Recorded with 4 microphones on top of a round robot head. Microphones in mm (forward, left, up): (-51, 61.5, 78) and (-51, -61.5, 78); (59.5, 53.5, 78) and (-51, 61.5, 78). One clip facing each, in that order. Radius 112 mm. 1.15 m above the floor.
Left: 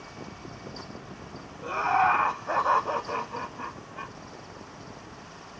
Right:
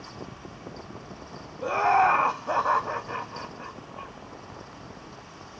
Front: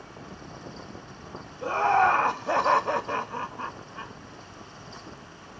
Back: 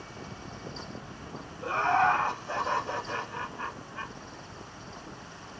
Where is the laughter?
55° right, 0.8 m; by 4.1 s 65° left, 0.9 m.